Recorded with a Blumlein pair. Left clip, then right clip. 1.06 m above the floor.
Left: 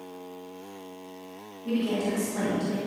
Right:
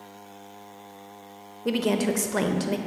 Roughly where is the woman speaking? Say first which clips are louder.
Right 4 dB; ahead right.